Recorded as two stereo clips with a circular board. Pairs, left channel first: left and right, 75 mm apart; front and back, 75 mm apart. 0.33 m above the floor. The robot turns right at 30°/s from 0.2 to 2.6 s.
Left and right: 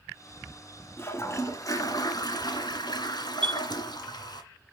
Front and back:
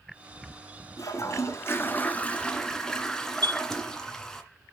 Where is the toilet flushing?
35° left, 1.8 m; by 4.4 s 80° left, 1.8 m.